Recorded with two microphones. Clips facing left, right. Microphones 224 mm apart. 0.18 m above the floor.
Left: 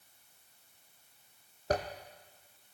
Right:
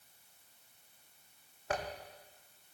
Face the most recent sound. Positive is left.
turn(degrees=40)  # may be behind; listen again after turning